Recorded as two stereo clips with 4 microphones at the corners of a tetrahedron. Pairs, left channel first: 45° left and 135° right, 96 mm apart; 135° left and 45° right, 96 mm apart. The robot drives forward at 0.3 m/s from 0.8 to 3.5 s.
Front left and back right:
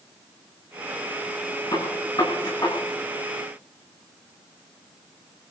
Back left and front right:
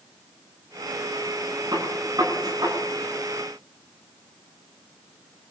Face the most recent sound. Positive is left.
turn(degrees=5)